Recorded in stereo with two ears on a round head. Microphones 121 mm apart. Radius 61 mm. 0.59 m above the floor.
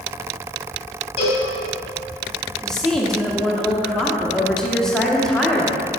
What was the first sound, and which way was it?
A cowbell, 45° left (ahead or behind).